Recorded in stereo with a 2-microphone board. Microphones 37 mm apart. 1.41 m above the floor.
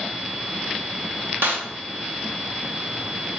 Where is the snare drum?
75° right (ahead or behind), 1.0 m.